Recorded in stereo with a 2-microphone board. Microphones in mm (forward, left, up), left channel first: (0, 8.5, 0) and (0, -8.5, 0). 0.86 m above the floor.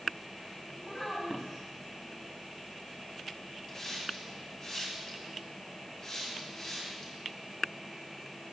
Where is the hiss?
30° left (ahead or behind), 3 m.